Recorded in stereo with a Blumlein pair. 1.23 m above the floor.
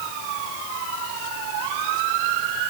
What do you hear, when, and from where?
Only background noise.